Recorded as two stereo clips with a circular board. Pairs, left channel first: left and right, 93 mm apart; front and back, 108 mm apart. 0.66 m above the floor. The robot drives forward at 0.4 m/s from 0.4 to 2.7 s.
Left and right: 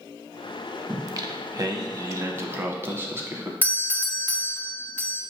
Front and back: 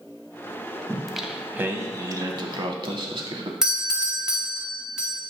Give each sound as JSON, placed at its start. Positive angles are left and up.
{"t": 0.9, "sound": "singing", "azimuth_deg": -75, "distance_m": 0.6}
{"t": 3.6, "sound": "a doorbell", "azimuth_deg": 110, "distance_m": 0.9}